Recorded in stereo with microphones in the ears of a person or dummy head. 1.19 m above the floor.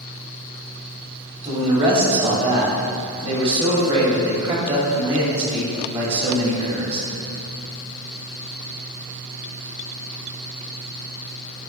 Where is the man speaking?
30° right (ahead or behind), 2.5 m.